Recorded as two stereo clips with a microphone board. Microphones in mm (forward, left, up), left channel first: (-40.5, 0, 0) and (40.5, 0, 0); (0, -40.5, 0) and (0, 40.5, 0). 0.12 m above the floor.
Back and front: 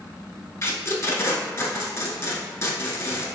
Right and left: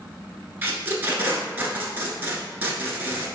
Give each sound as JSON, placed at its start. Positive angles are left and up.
{"t": 0.6, "sound": "tape being pulled", "azimuth_deg": 145, "distance_m": 0.6}